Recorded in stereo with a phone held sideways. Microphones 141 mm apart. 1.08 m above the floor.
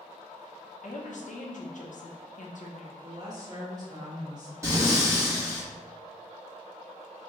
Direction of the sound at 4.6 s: 20° right (ahead or behind).